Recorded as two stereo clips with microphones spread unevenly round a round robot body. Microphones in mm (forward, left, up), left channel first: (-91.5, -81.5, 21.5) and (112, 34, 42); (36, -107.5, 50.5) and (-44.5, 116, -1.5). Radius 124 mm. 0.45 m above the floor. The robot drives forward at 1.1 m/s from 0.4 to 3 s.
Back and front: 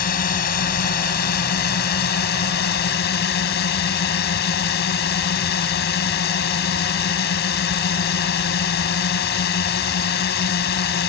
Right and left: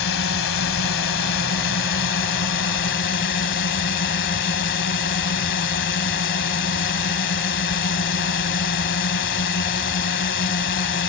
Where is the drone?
105° right; by 11.1 s 110° right.